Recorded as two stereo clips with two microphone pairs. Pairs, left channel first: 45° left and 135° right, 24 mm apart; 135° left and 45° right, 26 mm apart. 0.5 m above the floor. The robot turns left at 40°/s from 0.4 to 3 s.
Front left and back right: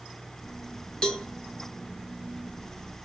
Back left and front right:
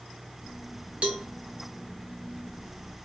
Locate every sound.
1.0 s a cowbell: 10° right, 1.3 m; by 1.3 s 20° right, 1.3 m